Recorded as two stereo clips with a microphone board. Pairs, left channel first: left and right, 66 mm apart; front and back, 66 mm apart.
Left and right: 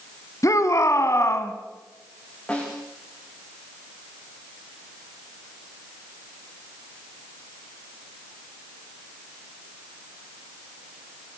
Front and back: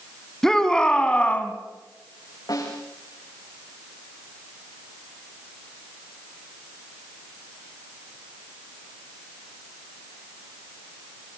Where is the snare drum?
15° left, 9 m.